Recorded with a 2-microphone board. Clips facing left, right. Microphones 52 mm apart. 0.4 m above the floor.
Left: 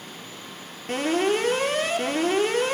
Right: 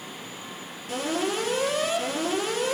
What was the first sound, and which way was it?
An alarm, 45° left (ahead or behind).